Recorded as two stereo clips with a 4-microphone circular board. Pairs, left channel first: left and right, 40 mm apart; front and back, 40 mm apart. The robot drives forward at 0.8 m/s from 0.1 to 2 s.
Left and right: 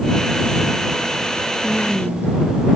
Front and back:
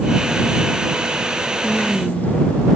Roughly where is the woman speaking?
Ahead left.